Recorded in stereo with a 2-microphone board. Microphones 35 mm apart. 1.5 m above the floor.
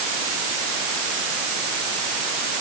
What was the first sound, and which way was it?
Only background noise.